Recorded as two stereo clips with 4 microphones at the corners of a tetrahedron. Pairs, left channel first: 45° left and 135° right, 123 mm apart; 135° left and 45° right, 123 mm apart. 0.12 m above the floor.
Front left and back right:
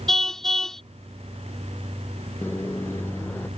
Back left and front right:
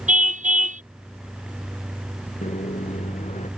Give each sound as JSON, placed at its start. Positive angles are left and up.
{"t": 0.1, "sound": "a car horn", "azimuth_deg": -40}
{"t": 2.4, "sound": "a microwave", "azimuth_deg": 115}